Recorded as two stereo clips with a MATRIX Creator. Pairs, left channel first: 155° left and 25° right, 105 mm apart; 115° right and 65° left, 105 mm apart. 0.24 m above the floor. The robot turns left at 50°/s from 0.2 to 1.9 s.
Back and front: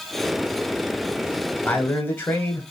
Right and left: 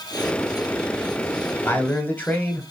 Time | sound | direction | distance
1.6 | a man speaking | 150° right | 1.0 m